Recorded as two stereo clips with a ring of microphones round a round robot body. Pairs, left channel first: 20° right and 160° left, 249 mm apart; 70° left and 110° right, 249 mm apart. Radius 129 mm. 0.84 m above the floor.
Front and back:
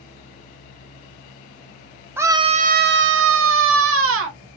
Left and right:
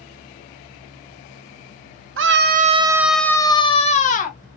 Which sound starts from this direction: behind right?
A scream, at 2.2 s.